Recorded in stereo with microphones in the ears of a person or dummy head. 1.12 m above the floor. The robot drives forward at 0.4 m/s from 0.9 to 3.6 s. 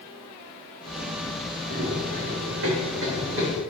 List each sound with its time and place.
1.7 s running footsteps: 60° right (ahead or behind), 3 m